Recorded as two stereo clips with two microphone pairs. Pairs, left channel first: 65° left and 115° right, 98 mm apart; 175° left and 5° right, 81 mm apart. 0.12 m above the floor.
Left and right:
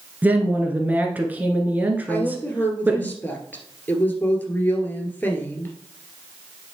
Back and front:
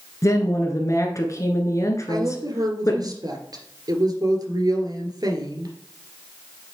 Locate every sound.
0.2 s a woman speaking: straight behind, 1.5 m
2.1 s a woman speaking: straight ahead, 2 m